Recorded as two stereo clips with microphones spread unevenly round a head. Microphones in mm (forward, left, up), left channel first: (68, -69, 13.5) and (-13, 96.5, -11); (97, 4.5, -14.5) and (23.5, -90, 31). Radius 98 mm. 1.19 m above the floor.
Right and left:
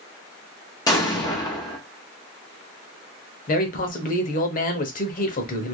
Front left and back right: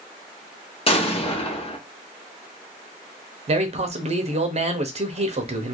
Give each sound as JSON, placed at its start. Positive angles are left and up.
{"t": 0.9, "sound": "an explosion", "azimuth_deg": 5, "distance_m": 1.0}
{"t": 3.5, "sound": "a man speaking", "azimuth_deg": -95, "distance_m": 0.8}